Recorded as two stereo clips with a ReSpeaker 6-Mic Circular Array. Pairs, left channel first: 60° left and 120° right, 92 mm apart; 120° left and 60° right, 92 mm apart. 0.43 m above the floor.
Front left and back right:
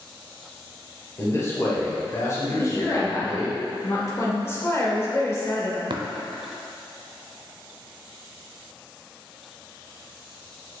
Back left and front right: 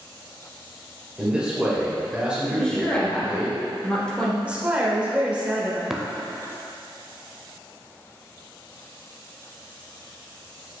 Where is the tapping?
145° right, 0.6 m.